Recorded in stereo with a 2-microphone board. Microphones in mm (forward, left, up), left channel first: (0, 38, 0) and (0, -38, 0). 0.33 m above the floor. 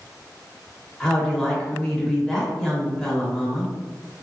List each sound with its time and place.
1.0 s a woman speaking: 5° left (ahead or behind), 0.8 m